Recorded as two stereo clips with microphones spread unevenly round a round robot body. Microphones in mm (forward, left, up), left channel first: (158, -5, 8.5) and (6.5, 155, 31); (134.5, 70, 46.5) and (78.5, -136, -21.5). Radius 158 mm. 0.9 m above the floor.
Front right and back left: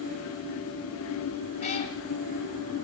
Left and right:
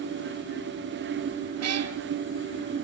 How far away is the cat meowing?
About 2.0 m.